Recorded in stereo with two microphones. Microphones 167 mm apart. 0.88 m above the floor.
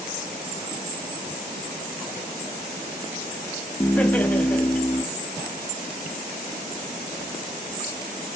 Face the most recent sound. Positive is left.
turn(degrees=10)  # may be behind; listen again after turning